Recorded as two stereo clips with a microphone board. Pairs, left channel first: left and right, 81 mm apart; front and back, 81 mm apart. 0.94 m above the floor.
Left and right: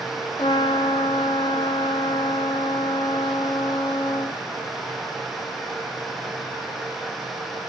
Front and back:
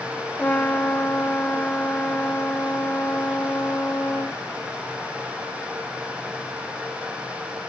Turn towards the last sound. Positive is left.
turn(degrees=75)